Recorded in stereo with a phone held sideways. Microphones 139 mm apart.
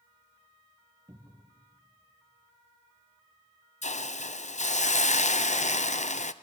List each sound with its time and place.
1.1 s a cupboard door: 20° right (ahead or behind), 2.0 m
3.8 s a hiss: 60° left (ahead or behind), 0.7 m